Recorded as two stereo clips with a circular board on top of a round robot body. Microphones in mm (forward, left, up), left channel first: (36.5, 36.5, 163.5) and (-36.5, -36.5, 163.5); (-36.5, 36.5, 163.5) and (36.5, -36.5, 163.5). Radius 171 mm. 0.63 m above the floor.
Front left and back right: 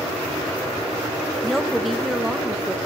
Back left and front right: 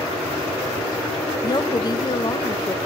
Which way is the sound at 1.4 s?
135° left.